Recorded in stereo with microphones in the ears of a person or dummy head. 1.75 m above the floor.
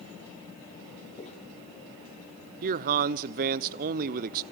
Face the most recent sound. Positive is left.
turn(degrees=-45)  # may be behind; listen again after turning